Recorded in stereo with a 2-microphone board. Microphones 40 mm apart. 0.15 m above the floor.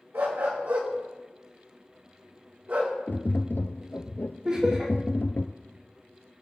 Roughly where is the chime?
No chime in this recording.